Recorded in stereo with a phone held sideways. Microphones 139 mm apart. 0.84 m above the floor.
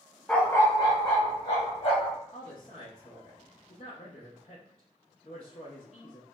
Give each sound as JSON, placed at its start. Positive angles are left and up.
{"t": 0.3, "sound": "a dog barking", "side_deg": 5, "distance_m": 0.5}
{"t": 2.3, "sound": "a woman speaking", "side_deg": 40, "distance_m": 0.7}